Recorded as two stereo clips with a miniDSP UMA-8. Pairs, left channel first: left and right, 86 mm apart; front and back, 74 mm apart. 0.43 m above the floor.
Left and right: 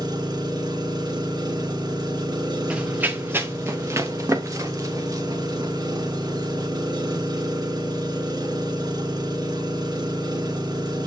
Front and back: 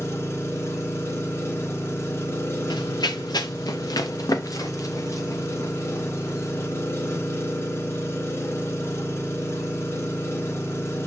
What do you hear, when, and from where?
0.0 s an engine running: 55° right, 4 m
2.7 s running footsteps: 15° right, 1.8 m; by 6.7 s 50° right, 5.5 m